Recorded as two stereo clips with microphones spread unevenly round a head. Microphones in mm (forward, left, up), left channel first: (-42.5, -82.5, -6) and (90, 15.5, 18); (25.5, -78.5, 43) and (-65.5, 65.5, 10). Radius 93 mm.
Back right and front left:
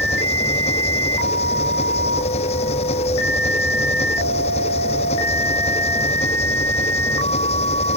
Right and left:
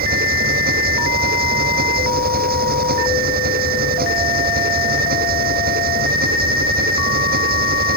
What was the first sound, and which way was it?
An engine running, 155° left.